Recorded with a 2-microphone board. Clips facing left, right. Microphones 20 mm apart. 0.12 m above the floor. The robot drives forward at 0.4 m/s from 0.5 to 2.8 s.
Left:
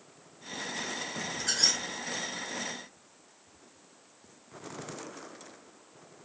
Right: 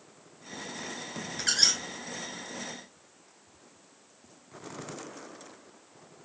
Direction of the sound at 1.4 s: 40° right (ahead or behind).